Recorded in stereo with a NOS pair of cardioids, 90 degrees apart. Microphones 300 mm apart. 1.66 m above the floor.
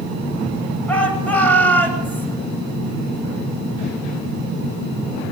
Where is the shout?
5° left, 9.5 m.